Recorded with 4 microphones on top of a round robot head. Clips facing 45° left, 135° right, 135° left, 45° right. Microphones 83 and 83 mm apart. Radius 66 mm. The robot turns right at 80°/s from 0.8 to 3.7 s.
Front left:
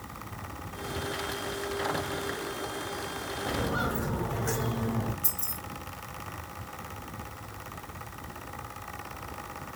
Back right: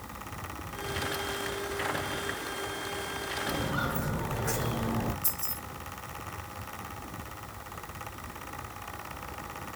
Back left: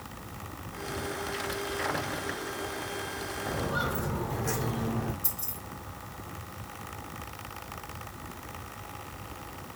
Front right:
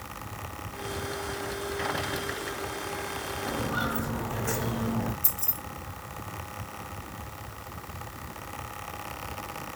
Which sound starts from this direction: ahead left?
Footsteps, at 3.5 s.